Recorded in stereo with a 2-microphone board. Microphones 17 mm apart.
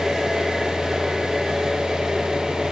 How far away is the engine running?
About 7 m.